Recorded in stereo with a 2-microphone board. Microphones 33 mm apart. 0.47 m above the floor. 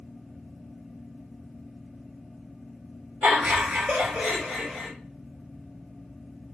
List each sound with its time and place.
3.2 s laughter: 55° right (ahead or behind), 1.7 m; by 4.9 s 15° right (ahead or behind), 1.7 m